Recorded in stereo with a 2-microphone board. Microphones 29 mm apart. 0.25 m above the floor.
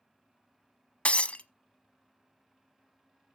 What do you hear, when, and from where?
1.1 s breaking glass: 40° left (ahead or behind), 0.8 m